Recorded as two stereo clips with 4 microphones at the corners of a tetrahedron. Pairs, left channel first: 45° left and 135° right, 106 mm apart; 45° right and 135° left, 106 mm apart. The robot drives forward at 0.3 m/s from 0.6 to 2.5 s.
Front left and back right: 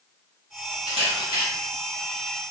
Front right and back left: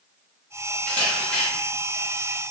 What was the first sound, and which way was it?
A camera shutter, 115° right.